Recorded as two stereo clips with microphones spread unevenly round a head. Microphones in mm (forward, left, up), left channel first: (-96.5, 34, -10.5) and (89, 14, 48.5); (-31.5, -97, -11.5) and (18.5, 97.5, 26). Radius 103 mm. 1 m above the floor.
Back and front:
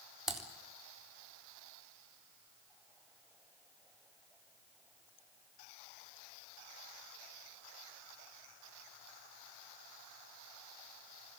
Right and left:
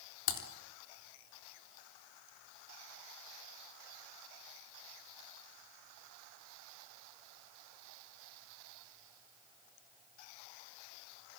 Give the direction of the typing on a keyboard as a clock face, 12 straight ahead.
3 o'clock.